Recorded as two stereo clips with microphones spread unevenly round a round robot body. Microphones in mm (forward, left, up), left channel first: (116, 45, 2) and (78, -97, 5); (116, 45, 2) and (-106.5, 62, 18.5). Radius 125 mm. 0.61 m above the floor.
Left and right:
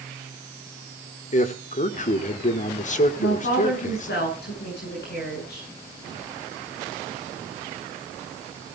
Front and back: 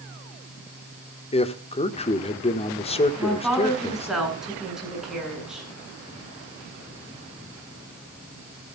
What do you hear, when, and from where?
1.3 s a man speaking: 55° left, 1.4 m
3.2 s a woman speaking: 90° left, 8.5 m